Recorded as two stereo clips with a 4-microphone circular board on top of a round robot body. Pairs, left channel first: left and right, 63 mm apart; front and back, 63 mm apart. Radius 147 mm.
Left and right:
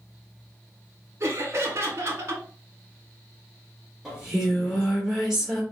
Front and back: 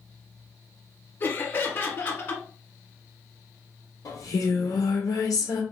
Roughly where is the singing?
Ahead.